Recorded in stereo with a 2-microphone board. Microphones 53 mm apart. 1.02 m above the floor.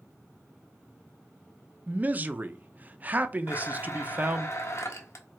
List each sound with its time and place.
1.9 s a man speaking: 30° right (ahead or behind), 0.6 m
3.5 s a blender: 60° left (ahead or behind), 1.0 m